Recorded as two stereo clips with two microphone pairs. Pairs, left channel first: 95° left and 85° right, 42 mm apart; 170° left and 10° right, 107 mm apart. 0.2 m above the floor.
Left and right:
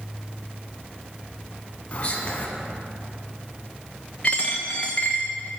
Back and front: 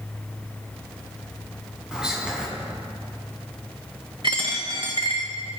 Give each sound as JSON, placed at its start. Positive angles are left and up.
{"t": 1.9, "sound": "whispering", "azimuth_deg": 70, "distance_m": 1.5}
{"t": 4.2, "sound": "a dropped coin", "azimuth_deg": 30, "distance_m": 1.1}